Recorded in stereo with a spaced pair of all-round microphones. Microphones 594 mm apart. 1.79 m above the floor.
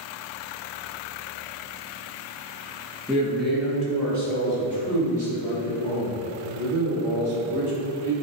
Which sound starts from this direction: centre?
A man speaking, at 3.1 s.